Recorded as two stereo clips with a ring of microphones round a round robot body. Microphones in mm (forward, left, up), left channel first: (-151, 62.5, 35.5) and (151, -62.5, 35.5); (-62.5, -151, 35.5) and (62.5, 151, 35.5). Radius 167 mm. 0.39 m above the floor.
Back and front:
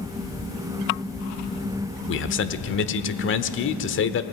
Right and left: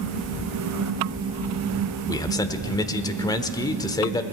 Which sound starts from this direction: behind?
A man speaking, at 2.1 s.